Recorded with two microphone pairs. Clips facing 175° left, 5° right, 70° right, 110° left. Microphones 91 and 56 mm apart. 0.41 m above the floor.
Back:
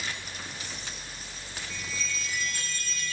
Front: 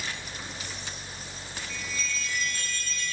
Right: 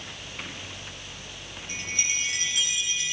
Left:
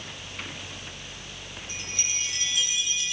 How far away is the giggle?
No giggle in this recording.